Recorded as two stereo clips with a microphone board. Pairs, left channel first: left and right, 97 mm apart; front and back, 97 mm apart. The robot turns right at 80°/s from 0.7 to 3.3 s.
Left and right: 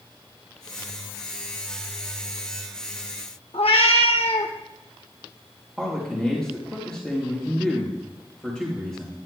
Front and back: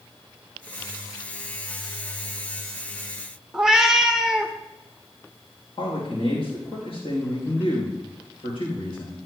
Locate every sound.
3.5 s a cat meowing: 95° left, 0.8 m
5.8 s a man speaking: 5° left, 3.5 m